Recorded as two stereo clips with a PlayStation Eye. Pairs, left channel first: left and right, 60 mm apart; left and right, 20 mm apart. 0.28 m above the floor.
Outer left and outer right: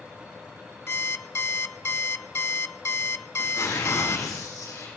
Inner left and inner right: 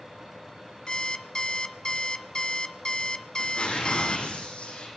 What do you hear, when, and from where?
0.9 s an alarm clock: 40° left (ahead or behind), 0.6 m
3.4 s tearing paper: 75° left (ahead or behind), 9 m